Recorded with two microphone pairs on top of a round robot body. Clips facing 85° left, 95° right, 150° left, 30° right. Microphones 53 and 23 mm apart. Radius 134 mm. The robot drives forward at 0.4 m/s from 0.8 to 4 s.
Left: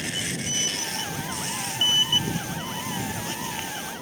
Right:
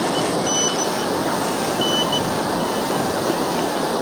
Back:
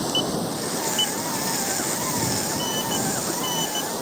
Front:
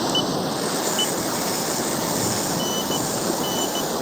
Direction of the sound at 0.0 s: 95° right.